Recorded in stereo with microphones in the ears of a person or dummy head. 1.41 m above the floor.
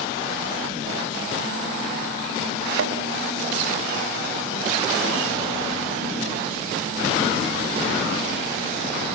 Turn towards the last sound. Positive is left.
turn(degrees=-70)  # may be behind; listen again after turning